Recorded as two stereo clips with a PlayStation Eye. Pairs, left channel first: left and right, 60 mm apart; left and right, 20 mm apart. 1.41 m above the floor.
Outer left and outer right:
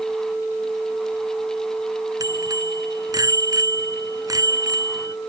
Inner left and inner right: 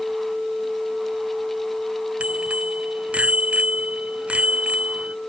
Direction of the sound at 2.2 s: 85° right.